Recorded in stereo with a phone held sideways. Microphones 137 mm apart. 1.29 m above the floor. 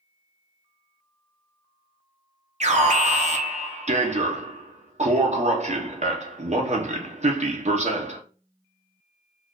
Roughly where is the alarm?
Right.